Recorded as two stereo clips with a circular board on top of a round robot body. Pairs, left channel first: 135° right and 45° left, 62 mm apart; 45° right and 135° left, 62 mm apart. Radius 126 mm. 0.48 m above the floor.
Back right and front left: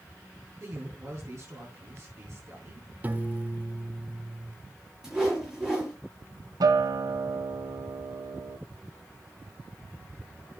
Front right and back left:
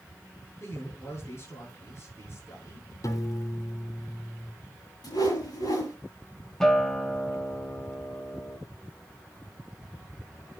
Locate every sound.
0.6 s a man speaking: 5° left, 8 m
3.0 s a piano: 15° right, 1.3 m
5.0 s a whoosh: 35° right, 8.5 m
6.6 s a guitar: 40° left, 1.2 m